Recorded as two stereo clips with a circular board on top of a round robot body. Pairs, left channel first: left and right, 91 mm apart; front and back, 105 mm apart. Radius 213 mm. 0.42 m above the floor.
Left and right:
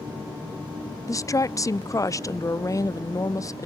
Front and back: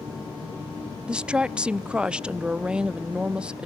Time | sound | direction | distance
1.1 | a woman speaking | 105° left | 1.1 m